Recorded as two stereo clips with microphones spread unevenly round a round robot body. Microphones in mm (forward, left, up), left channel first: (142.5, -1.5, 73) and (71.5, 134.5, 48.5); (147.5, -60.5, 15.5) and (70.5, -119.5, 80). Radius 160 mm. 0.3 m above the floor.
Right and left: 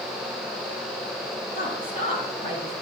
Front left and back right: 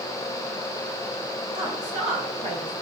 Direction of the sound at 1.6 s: 95° right.